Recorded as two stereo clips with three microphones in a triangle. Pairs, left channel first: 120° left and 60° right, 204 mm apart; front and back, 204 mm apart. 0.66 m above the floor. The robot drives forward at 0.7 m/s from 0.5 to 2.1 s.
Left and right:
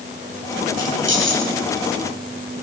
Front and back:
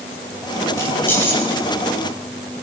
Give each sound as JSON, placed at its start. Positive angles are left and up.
{"t": 0.8, "sound": "keys jangling", "azimuth_deg": -75, "distance_m": 6.0}